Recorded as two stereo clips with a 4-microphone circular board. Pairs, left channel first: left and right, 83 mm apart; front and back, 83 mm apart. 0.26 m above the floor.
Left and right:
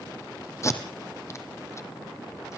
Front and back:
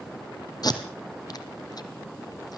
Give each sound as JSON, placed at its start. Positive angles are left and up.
{"t": 0.6, "sound": "tape being pulled", "azimuth_deg": 35, "distance_m": 2.5}